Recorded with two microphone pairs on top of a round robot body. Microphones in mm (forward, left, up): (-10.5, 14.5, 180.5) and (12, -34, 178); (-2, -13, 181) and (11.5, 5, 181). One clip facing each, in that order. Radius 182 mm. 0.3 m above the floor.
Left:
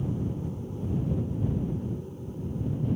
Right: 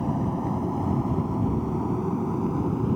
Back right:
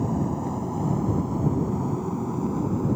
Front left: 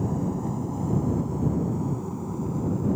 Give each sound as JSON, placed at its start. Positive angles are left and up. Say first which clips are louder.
{"t": 0.0, "sound": "an aircraft", "louder": "right 6 dB, back right 2 dB", "azimuth_deg": -60}